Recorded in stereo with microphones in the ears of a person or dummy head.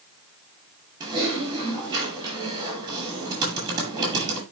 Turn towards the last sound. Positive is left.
turn(degrees=-20)  # may be behind; listen again after turning